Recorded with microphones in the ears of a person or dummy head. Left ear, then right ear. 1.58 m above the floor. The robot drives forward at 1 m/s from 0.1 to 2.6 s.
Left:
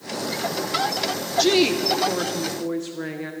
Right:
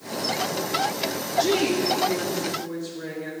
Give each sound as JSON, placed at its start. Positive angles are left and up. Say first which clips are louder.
{"t": 1.4, "sound": "a woman speaking", "louder": "left 3 dB", "side_deg": 35, "distance_m": 0.8}